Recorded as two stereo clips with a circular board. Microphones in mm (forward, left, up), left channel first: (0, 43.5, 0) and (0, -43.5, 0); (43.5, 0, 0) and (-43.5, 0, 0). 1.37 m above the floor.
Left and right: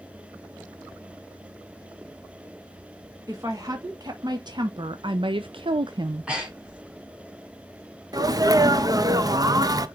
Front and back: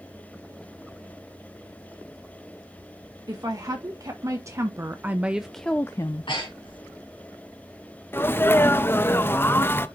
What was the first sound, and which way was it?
A woman speaking, 140° right.